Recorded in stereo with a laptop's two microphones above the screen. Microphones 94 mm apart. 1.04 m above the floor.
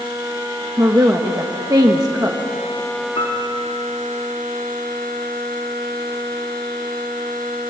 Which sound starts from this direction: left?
A piano, at 3.1 s.